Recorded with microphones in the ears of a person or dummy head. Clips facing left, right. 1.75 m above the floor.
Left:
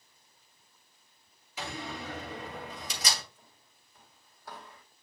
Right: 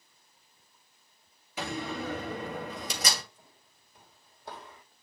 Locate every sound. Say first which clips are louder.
1.6 s a door slam: right 5 dB; 55° right (ahead or behind), 2.5 m
3.4 s footsteps: right 2 dB; 10° right (ahead or behind), 3 m; by 4.8 s 35° right (ahead or behind), 2.5 m